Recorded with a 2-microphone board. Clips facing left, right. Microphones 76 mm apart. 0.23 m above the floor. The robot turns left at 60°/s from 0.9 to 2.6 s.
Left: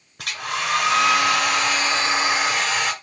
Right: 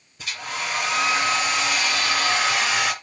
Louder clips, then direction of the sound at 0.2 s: Left 4 dB; 105° left.